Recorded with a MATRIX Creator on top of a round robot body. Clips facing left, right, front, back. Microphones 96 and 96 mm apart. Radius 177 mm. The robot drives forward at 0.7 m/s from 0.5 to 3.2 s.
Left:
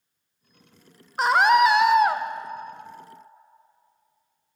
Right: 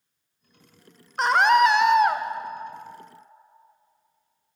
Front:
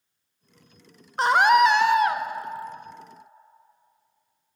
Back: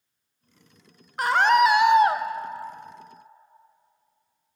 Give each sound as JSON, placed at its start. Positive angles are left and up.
{"t": 1.2, "sound": "a scream", "azimuth_deg": 10, "distance_m": 0.8}